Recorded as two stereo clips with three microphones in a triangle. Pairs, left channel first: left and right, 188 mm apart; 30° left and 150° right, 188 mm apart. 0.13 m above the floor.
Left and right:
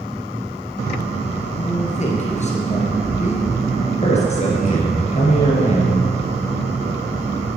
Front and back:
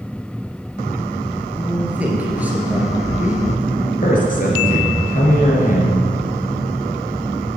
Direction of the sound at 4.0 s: 50° left.